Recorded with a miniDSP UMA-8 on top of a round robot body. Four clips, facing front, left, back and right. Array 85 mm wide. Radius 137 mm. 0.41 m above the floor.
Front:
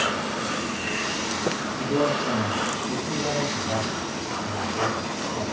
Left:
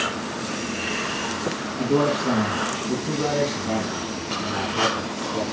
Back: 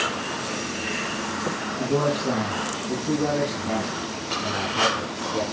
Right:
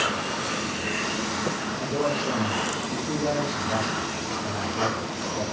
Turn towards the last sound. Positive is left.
turn(degrees=140)